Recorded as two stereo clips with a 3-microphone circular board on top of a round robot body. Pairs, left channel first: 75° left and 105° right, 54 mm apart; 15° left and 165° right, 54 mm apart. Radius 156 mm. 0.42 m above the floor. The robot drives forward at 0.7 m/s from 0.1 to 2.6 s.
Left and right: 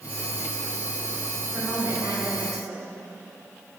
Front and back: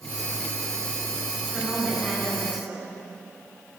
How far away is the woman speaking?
About 5.5 m.